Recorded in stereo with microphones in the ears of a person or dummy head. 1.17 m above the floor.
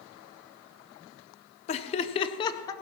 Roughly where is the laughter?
Left.